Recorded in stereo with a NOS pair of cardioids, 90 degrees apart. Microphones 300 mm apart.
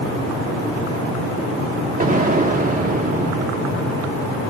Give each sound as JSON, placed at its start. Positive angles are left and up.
{"t": 2.0, "sound": "an explosion", "azimuth_deg": -30, "distance_m": 1.5}